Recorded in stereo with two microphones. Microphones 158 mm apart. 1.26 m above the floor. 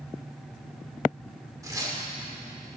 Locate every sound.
1.6 s tearing paper: 20° right (ahead or behind), 1.8 m